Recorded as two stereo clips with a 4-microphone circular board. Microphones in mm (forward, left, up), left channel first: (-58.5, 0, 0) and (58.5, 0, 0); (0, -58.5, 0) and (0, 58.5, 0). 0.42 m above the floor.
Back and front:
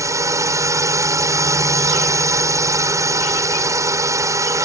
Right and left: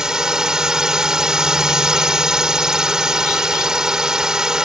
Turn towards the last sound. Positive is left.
turn(degrees=10)